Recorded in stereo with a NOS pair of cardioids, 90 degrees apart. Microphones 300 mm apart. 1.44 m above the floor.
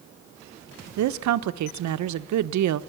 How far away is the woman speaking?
About 1.2 m.